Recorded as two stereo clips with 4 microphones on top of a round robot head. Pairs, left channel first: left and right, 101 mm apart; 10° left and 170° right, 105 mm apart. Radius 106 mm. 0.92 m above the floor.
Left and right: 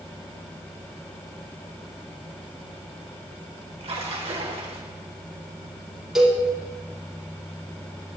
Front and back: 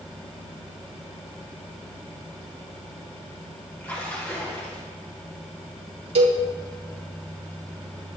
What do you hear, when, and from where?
3.8 s a splash: 65° right, 2.5 m
6.2 s a cowbell: 175° right, 3 m